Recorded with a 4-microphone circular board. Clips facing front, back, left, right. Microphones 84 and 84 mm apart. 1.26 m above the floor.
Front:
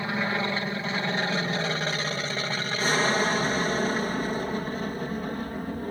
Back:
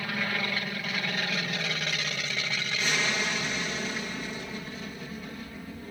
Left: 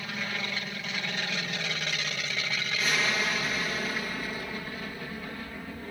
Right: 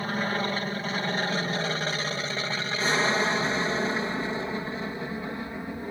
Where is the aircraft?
55° right; by 5.9 s 25° right.